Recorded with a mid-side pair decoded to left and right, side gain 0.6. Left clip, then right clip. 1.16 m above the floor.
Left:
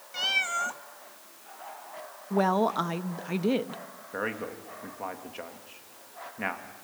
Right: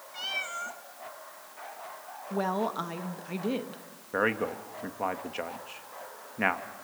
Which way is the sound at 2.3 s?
25° left.